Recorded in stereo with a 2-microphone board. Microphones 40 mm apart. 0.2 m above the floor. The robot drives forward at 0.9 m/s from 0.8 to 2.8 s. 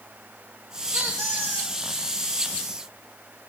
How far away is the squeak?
About 3.5 m.